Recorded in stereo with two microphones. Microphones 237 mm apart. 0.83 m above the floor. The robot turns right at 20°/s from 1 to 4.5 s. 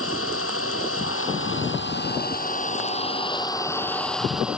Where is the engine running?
115° left; by 4.6 s 175° right.